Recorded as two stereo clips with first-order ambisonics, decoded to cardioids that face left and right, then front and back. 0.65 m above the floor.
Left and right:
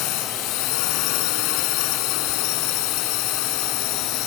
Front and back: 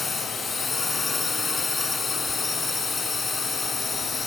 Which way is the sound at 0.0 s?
80° left.